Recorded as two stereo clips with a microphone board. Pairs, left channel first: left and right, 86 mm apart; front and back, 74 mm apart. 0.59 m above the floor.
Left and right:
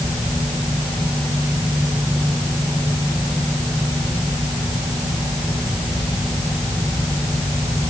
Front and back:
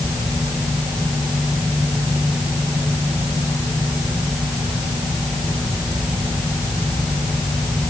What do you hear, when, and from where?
Only background noise.